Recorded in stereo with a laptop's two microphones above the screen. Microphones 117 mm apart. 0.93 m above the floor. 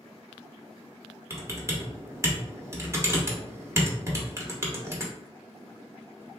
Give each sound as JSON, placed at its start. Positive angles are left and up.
{"t": 1.3, "sound": "typing on a keyboard", "side_deg": -25, "distance_m": 0.8}